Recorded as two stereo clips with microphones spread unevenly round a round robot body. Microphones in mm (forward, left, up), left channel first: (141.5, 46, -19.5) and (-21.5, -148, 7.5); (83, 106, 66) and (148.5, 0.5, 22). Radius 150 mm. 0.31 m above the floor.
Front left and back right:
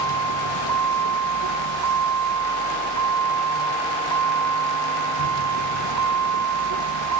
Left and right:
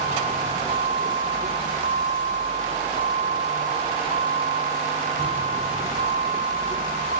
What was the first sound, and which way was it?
A vehicle, 115° right.